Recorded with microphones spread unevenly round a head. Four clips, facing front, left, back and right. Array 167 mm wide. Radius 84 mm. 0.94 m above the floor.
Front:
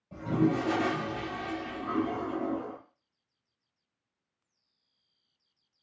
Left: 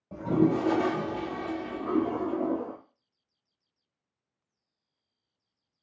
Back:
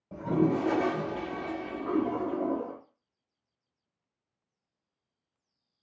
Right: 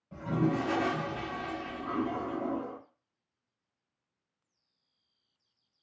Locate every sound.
0.1 s a toilet flushing: 125° left, 0.5 m